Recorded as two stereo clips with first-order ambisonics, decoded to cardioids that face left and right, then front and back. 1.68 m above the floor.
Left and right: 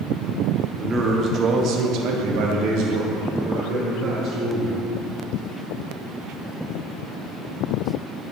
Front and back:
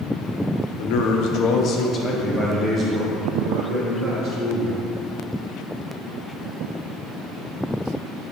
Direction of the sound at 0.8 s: 15° right.